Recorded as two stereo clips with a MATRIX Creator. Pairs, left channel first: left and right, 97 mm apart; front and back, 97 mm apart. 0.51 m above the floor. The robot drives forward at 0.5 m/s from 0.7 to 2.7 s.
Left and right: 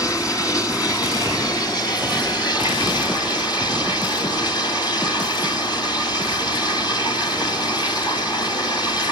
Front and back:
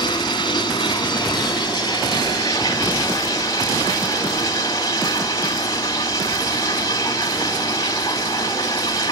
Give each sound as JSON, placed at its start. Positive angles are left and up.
{"t": 0.0, "sound": "running water", "azimuth_deg": 40, "distance_m": 4.0}